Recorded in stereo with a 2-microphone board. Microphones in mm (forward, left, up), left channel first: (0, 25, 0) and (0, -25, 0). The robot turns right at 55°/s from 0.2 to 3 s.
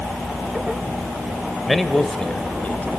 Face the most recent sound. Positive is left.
turn(degrees=70)